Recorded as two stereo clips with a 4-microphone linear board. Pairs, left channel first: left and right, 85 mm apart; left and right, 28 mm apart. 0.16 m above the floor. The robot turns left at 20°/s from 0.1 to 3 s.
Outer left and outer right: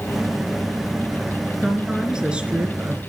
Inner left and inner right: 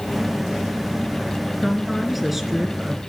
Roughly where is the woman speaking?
Centre.